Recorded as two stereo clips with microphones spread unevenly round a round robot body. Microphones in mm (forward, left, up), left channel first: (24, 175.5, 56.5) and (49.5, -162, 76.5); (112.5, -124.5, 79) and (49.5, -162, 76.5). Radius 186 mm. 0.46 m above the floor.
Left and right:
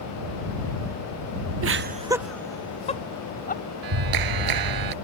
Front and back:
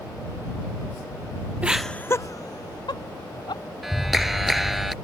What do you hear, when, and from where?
1.6 s laughter: 95° right; by 3.6 s 30° left
3.8 s a clap: 60° right